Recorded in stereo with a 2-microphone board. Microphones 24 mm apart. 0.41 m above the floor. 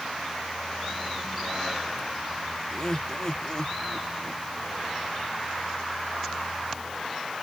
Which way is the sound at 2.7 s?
25° left (ahead or behind).